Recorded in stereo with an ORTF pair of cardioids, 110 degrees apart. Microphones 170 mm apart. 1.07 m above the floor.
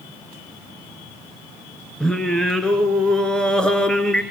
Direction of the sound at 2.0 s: 5° left.